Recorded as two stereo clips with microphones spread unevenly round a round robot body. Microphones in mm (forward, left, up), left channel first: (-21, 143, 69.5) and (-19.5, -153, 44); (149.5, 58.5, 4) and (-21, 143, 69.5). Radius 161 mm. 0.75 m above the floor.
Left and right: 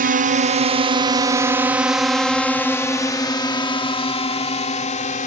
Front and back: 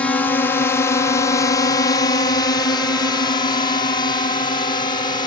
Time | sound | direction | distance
0.0 | a drone | 70° right | ?